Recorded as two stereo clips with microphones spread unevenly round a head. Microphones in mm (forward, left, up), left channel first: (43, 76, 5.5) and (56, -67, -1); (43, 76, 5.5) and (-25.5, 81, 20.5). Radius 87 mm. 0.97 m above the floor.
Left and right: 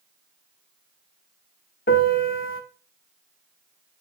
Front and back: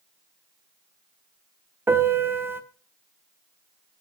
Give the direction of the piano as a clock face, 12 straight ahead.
8 o'clock.